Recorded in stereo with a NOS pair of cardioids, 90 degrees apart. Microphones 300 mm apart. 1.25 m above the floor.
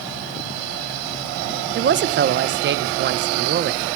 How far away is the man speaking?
About 0.6 m.